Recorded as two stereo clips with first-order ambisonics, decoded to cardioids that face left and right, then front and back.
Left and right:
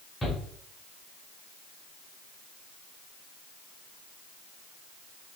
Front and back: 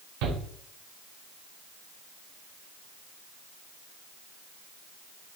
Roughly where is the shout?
Behind.